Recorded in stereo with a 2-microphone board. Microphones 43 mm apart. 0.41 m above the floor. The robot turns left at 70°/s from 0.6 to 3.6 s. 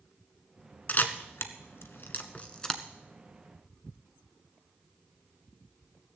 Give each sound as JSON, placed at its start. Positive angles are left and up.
{"t": 0.9, "sound": "a camera shutter", "side_deg": 40, "distance_m": 1.1}